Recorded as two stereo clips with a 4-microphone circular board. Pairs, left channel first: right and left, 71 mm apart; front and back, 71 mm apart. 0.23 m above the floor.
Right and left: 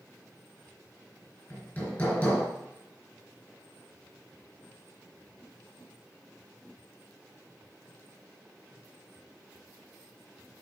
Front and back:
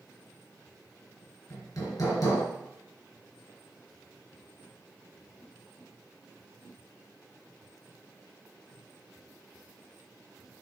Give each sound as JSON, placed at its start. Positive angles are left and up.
{"t": 1.5, "sound": "hammering", "azimuth_deg": -35, "distance_m": 3.0}